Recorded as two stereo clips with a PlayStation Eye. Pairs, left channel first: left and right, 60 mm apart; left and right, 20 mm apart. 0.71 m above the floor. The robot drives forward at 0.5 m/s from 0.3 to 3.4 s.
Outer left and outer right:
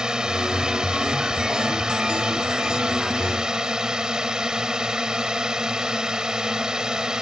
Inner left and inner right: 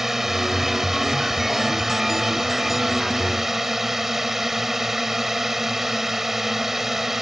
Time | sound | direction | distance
0.0 | a drone | 10° right (ahead or behind) | ?